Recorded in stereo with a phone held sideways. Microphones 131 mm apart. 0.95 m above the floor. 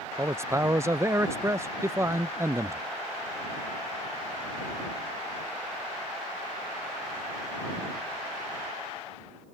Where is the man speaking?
20° right (ahead or behind).